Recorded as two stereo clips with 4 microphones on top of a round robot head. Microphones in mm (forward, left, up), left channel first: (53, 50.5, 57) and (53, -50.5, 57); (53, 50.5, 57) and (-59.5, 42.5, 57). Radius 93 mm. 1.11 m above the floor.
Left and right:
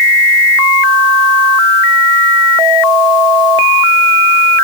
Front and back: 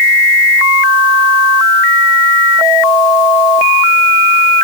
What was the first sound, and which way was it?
Only background noise.